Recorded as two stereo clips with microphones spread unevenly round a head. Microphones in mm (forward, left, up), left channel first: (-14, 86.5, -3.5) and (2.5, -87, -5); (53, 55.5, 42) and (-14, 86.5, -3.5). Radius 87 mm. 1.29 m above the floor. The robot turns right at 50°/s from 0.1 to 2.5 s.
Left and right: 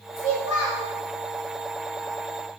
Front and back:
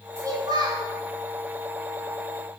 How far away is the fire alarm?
No fire alarm in this recording.